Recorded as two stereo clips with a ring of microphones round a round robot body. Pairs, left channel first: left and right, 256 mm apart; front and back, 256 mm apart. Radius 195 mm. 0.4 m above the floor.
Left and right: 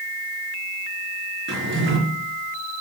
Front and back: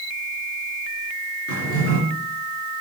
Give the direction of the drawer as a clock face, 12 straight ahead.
1 o'clock.